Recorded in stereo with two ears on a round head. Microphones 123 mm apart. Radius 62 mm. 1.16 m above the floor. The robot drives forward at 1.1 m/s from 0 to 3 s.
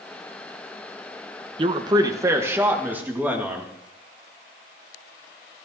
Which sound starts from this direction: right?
A man speaking, at 1.6 s.